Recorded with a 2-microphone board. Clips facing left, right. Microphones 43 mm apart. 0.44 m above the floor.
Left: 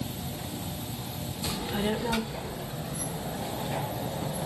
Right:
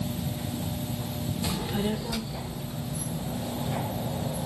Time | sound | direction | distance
1.4 | a child speaking | 10° right (ahead or behind) | 0.6 m